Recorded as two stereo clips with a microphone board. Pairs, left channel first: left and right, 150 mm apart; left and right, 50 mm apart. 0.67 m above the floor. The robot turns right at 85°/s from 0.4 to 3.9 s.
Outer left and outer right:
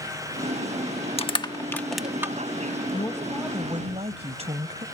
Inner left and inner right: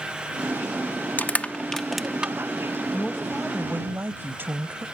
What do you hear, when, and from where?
1.2 s crushing: 40° left (ahead or behind); by 2.8 s 40° right (ahead or behind)
2.9 s a woman speaking: 145° left; by 4.8 s 135° right